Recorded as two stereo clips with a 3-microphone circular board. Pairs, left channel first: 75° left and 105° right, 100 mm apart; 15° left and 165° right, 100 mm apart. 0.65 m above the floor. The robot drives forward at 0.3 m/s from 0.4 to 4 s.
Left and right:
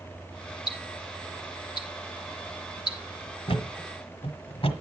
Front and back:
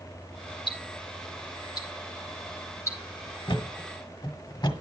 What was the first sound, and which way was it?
Ticking, 40° left.